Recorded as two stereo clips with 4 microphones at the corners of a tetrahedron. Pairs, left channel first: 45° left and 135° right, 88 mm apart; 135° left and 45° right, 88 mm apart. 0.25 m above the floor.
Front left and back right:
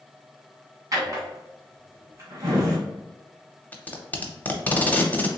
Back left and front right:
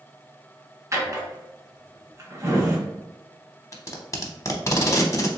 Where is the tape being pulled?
105° left, 0.6 m.